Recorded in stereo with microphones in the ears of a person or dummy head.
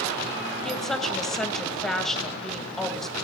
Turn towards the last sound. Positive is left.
turn(degrees=5)  # may be behind; listen again after turning